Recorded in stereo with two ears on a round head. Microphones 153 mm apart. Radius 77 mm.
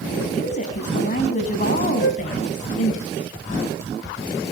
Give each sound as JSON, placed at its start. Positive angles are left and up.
{"t": 0.3, "sound": "a woman speaking", "side_deg": 50, "distance_m": 5.0}
{"t": 2.0, "sound": "a flute", "side_deg": 65, "distance_m": 1.5}